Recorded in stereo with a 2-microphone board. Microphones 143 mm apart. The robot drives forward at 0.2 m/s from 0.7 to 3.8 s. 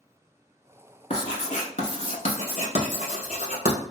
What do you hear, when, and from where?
1.1 s writing: 55° left (ahead or behind), 1.0 m; by 3.8 s 60° left (ahead or behind), 0.9 m